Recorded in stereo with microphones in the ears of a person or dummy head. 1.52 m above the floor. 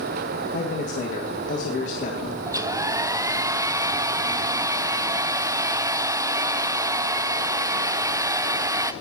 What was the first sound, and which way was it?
A man speaking, 50° left (ahead or behind).